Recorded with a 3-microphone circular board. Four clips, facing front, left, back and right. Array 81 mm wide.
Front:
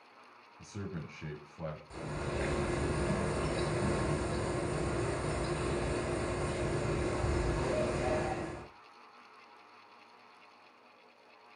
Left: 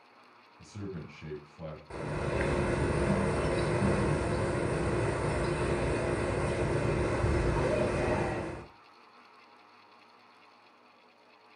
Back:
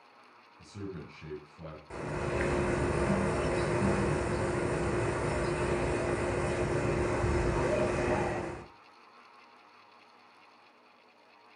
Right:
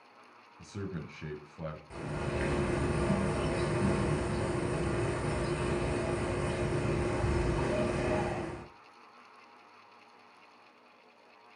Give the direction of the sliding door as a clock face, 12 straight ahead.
I don't hear a sliding door.